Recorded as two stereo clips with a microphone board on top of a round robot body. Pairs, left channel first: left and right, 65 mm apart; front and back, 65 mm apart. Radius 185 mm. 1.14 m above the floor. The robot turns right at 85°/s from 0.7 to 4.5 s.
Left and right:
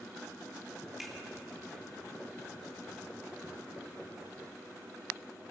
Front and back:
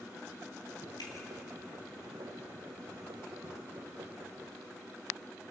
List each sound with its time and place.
1.0 s a finger snap: 10° right, 2.5 m; by 1.2 s 5° left, 2.5 m